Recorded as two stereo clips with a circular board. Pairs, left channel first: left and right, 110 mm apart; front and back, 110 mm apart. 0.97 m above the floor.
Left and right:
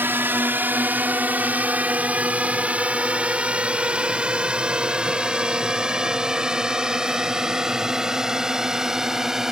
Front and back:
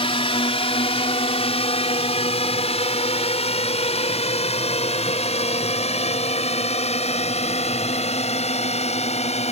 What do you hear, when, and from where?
0.0 s a drone: 20° right; by 9.5 s 5° right